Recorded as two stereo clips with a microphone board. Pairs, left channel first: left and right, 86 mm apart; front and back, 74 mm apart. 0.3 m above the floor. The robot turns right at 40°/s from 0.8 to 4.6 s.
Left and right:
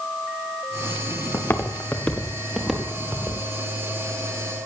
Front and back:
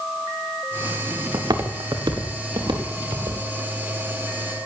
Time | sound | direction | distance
1.3 | footsteps | 150° left | 1.7 m